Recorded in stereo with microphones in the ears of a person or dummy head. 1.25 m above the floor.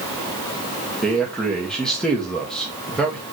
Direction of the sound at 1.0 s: Centre (ahead or behind).